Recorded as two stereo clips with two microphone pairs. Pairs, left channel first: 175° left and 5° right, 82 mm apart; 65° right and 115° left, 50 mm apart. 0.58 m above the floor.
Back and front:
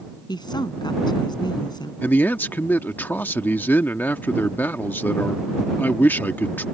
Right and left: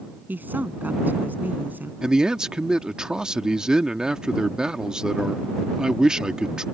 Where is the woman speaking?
160° left.